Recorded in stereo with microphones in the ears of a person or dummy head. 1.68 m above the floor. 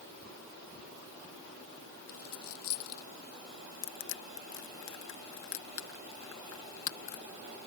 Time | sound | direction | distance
2.1 | a dropped coin | 85° left | ?
3.8 | crushing | 65° left (ahead or behind) | ?